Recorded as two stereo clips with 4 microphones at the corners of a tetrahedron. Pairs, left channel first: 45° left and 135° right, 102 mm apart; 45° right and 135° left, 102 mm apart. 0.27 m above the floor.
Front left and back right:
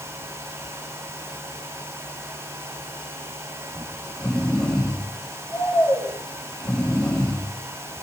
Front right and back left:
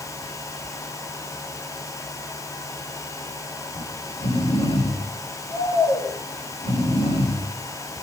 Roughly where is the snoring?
Ahead right.